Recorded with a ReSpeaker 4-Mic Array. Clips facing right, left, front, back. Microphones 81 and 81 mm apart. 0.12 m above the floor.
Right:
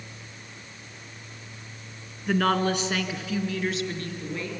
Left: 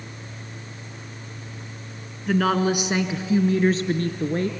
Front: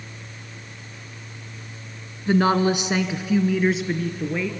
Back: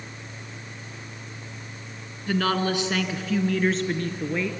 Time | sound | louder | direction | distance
2.3 | a woman speaking | left 3 dB, front 5 dB | 5° right | 1.2 m